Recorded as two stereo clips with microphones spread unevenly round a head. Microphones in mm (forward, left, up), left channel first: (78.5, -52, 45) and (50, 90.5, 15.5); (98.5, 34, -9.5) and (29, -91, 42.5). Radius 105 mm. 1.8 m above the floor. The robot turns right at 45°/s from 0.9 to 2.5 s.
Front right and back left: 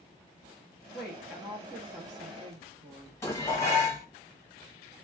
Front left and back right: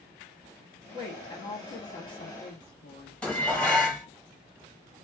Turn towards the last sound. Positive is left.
turn(degrees=-40)